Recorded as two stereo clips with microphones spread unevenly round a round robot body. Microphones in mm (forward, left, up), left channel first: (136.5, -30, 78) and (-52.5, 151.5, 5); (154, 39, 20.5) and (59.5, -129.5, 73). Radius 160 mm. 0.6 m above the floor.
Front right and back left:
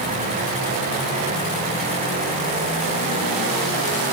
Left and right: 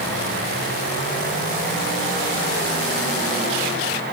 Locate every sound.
Only background noise.